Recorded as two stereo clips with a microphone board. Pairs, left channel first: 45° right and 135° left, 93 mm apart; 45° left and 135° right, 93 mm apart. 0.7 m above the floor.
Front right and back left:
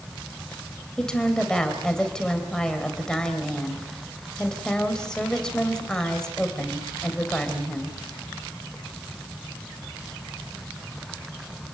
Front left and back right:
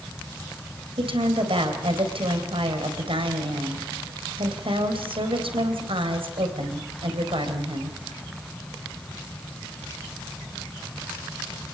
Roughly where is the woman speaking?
Behind right.